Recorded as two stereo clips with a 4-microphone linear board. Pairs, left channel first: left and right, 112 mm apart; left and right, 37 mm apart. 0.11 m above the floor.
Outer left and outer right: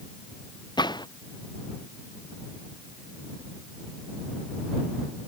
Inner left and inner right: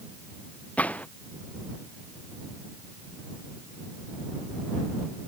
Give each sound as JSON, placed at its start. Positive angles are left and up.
{"t": 0.8, "sound": "a gunshot", "side_deg": 40}